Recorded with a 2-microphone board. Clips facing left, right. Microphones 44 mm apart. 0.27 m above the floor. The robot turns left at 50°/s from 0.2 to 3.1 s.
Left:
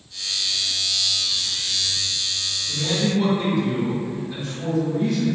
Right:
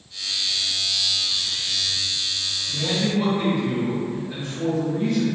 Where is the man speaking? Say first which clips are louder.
Left 1 dB; 40° right (ahead or behind), 1.8 m; by 5.3 s 35° right (ahead or behind), 1.8 m.